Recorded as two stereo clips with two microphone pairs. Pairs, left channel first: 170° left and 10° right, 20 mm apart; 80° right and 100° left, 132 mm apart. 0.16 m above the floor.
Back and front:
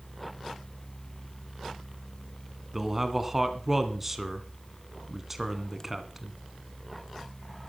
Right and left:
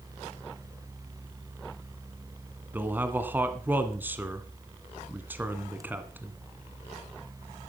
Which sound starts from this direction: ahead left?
A man speaking, at 2.7 s.